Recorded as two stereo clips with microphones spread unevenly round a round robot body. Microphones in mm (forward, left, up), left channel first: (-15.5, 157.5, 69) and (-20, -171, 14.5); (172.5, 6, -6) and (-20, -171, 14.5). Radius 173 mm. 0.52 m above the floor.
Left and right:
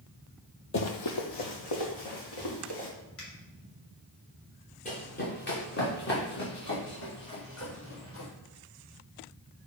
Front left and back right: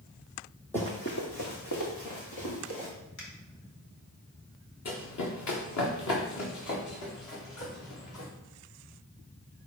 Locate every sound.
0.7 s running footsteps: 130° left, 0.8 m; by 2.9 s 70° left, 3.5 m
3.2 s a finger snap: 35° left, 2.5 m
4.8 s running footsteps: 25° left, 1.9 m; by 8.3 s 35° left, 5.5 m